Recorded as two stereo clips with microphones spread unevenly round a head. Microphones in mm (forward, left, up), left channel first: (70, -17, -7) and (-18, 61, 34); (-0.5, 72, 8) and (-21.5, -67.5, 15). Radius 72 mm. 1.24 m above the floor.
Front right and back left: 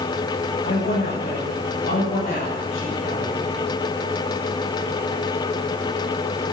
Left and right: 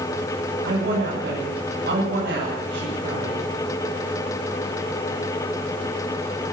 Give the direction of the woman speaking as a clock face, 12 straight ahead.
2 o'clock.